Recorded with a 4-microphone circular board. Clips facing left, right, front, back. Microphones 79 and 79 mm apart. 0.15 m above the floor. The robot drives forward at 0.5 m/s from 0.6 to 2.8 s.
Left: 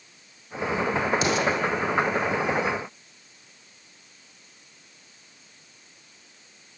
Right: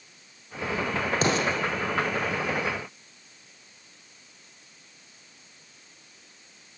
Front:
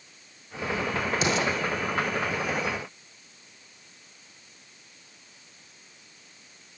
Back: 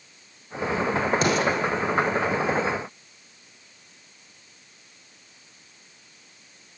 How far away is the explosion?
About 8 m.